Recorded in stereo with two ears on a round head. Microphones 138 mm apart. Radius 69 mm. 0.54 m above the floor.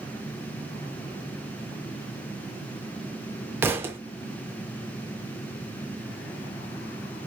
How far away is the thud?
About 0.5 m.